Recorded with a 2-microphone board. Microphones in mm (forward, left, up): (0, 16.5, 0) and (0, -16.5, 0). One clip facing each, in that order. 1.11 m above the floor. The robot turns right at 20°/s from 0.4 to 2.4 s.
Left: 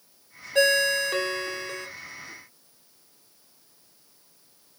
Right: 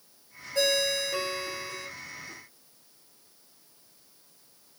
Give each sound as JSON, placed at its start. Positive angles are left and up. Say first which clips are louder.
{"t": 0.6, "sound": "a ringtone", "louder": "left 5 dB", "side_deg": 55, "distance_m": 0.7}